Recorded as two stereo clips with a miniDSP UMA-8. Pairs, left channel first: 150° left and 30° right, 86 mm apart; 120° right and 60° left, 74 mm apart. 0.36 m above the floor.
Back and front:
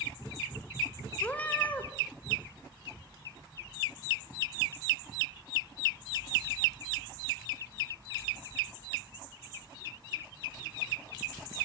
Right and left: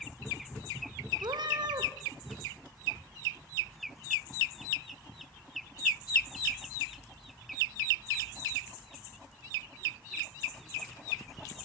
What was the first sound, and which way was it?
A cat meowing, 80° left.